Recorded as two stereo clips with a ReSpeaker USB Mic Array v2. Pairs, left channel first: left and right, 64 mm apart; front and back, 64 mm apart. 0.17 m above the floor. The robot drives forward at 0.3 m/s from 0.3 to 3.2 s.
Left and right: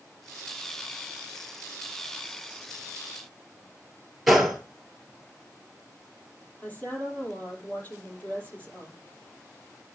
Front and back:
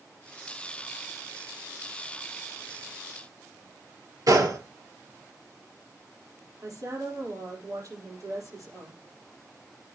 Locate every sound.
4.3 s a gunshot: 175° right, 1.3 m
6.6 s a woman speaking: 155° left, 5 m